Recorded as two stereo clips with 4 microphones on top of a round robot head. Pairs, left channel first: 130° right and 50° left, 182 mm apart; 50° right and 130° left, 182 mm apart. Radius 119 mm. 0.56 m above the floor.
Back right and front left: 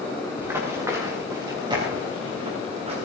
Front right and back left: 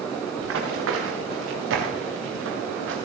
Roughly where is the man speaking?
I don't hear a man speaking.